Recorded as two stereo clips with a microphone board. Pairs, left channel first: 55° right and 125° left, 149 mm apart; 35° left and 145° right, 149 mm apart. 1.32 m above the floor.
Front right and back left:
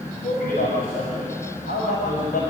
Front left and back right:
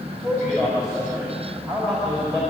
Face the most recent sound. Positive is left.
turn(degrees=-50)